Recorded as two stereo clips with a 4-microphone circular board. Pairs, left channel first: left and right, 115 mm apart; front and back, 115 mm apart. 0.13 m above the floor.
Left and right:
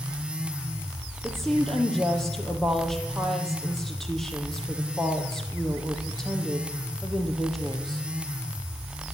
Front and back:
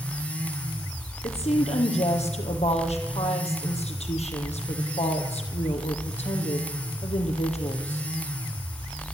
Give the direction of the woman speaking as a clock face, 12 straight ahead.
12 o'clock.